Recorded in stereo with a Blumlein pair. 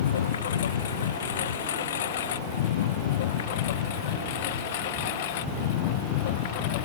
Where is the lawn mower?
60° left; by 6.8 s 50° left.